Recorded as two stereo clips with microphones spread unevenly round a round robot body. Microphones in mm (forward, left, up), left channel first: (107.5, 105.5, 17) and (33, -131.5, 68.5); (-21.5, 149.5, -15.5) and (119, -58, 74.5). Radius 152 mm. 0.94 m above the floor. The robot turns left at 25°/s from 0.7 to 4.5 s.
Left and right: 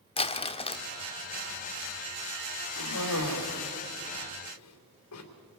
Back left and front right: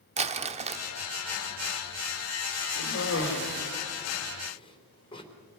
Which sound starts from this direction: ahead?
Crumpling, at 0.2 s.